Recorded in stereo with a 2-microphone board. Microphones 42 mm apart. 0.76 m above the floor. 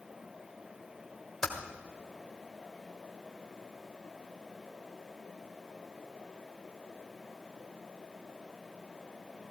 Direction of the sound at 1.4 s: 10° left (ahead or behind).